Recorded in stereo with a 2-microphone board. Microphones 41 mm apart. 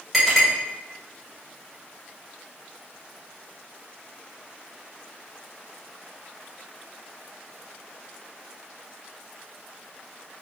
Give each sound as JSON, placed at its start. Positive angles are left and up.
{"t": 0.1, "sound": "a clink", "side_deg": 5, "distance_m": 1.5}